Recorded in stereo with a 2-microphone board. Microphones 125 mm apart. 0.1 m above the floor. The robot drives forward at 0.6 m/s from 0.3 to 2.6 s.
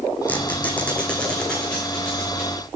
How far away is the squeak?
About 1.3 m.